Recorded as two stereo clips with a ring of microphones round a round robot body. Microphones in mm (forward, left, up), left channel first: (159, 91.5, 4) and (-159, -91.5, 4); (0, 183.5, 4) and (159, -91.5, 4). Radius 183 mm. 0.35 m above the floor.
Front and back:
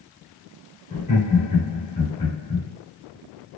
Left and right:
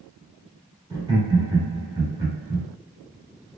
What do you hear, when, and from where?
0.9 s laughter: 5° right, 1.4 m